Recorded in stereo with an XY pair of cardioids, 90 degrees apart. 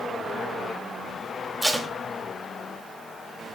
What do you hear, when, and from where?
1.6 s tape being pulled: 10° right, 3 m